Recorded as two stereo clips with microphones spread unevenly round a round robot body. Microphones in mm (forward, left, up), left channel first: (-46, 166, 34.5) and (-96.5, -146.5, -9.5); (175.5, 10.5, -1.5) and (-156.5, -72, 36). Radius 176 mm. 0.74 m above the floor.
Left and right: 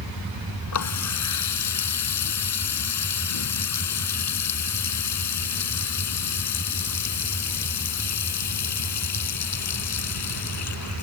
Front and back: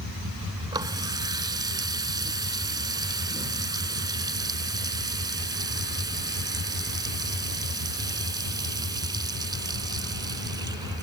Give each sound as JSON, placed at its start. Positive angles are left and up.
{"t": 0.7, "sound": "a running tap", "azimuth_deg": 115}